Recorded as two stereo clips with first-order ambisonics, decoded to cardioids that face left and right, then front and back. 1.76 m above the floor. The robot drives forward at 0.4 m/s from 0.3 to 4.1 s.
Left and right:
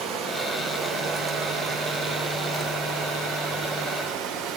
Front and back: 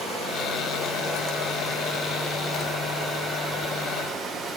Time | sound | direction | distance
0.0 | running water | 65° right | 3 m